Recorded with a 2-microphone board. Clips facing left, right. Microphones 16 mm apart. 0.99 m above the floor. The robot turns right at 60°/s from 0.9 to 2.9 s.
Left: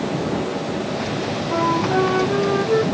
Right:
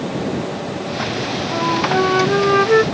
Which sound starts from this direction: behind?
A flute, at 1.5 s.